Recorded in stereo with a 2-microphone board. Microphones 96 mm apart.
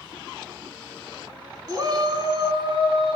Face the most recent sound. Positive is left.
turn(degrees=-60)  # may be behind; listen again after turning